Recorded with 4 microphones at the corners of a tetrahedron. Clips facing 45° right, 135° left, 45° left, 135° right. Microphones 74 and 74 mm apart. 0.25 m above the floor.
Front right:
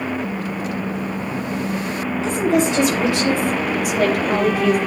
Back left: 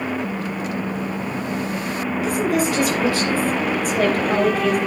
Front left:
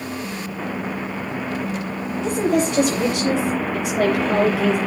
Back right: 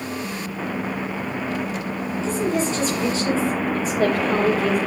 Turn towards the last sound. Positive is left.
turn(degrees=40)